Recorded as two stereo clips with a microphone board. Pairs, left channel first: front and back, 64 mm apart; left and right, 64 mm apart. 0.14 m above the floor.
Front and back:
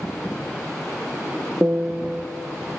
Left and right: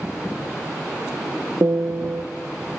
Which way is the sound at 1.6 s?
125° right.